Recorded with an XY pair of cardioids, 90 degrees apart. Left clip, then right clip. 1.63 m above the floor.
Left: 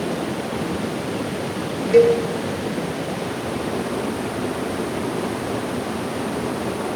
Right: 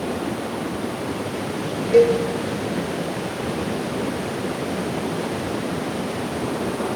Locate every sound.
1.9 s a cowbell: 45° left, 5 m